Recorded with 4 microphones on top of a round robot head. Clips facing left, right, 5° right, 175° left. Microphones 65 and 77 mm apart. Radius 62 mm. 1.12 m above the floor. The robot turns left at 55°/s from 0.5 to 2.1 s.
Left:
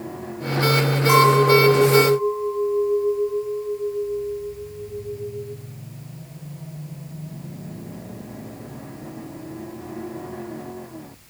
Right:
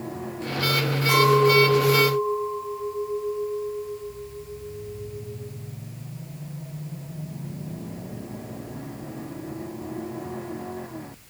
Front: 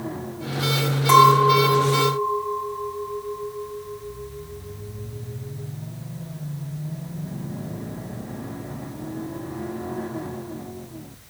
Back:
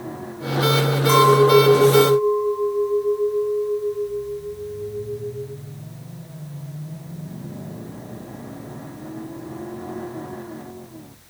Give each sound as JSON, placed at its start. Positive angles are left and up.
{"t": 1.1, "sound": "a clink", "azimuth_deg": 10, "distance_m": 5.0}